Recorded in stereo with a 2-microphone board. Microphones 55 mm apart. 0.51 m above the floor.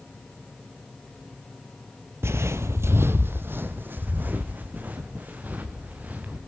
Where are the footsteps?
50° right (ahead or behind), 0.7 m; by 6.4 s 30° right (ahead or behind), 4 m.